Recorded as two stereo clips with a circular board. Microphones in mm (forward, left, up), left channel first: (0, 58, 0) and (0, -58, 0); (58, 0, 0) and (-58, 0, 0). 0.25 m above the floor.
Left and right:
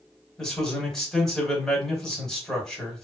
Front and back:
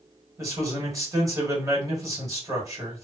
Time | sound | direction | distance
0.4 | a man speaking | 170° left | 1.4 m